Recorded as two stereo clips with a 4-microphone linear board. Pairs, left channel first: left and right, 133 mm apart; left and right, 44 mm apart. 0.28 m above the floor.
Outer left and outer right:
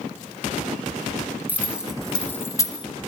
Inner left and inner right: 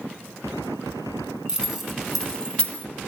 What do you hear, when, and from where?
1.5 s keys jangling: 15° right (ahead or behind), 2 m; by 2.9 s 35° left (ahead or behind), 1.6 m